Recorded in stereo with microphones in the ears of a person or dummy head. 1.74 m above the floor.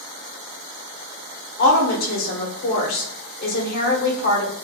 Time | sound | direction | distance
1.6 | a woman speaking | 55° left (ahead or behind) | 1.0 m